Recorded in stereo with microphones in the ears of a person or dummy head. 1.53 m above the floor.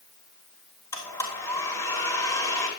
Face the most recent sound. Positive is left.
turn(degrees=20)  # may be behind; listen again after turning